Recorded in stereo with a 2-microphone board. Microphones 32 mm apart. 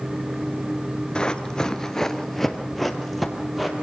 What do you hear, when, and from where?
1.1 s running footsteps: 30° left (ahead or behind), 1.1 m; by 3.7 s centre (ahead or behind), 2 m